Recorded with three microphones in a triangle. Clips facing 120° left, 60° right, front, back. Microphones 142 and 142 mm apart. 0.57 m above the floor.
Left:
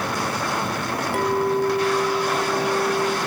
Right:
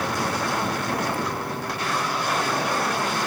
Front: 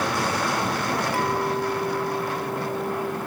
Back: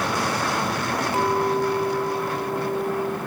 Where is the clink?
110° left, 1.3 m.